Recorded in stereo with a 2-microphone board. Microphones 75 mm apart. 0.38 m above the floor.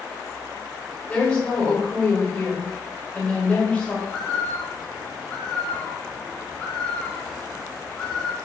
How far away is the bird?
About 1.2 m.